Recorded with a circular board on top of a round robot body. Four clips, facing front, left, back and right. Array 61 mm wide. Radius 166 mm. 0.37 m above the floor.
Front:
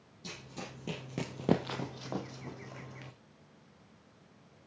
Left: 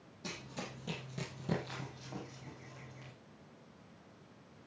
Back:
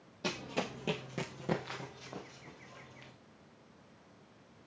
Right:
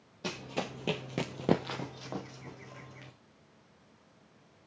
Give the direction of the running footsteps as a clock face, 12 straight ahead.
5 o'clock.